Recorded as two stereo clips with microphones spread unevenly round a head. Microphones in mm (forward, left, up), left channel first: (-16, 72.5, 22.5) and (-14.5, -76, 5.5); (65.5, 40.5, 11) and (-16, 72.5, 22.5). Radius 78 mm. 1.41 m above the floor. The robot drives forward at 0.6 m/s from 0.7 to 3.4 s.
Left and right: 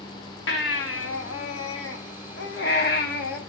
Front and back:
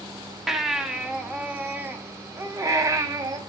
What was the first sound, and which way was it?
A baby crying, 75° left.